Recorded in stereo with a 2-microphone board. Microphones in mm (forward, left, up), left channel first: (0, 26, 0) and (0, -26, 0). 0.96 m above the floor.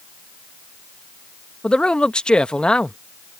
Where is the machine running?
No machine running in this recording.